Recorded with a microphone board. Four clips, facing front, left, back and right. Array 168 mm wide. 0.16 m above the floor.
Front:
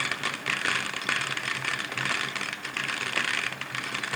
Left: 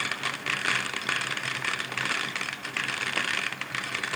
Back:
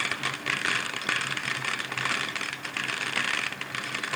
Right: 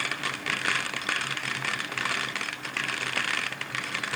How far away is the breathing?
I don't hear breathing.